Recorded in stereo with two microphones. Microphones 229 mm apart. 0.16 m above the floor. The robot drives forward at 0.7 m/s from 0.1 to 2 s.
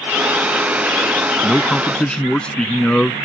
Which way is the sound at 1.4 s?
5° left (ahead or behind).